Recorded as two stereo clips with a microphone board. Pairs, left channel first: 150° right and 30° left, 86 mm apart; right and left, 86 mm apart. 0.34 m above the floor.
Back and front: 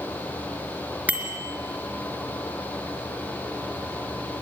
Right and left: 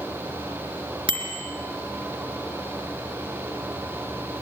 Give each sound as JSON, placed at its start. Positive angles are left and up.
{"t": 1.1, "sound": "a bicycle bell", "azimuth_deg": 100, "distance_m": 3.5}